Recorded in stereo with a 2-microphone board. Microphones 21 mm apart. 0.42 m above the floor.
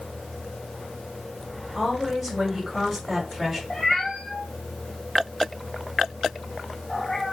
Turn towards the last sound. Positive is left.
turn(degrees=20)  # may be behind; listen again after turning